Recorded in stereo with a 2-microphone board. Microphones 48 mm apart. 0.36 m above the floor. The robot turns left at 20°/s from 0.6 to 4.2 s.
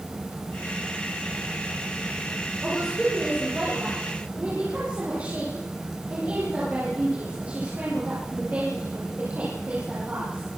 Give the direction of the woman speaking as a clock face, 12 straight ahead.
12 o'clock.